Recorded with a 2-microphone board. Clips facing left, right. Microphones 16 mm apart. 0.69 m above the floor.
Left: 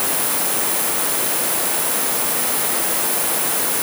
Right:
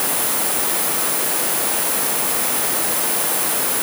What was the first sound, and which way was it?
Only background noise.